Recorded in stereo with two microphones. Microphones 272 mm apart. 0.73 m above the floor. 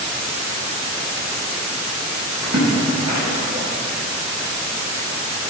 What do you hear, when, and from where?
2.4 s a splash: 80° right, 4 m